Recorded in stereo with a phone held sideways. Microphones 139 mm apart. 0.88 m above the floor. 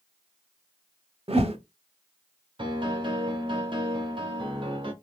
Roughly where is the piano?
Right.